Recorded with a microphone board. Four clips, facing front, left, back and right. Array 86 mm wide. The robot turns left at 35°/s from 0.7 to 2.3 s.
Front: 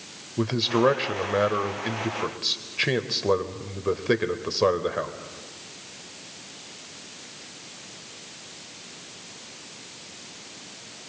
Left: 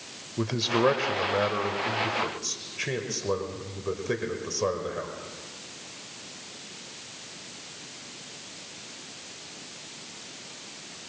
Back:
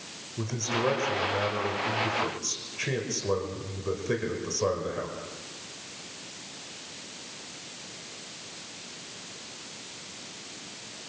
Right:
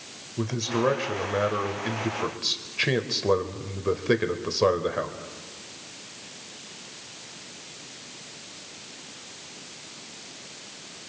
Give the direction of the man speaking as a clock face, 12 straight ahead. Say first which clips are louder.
Left 1 dB, front 8 dB; 11 o'clock.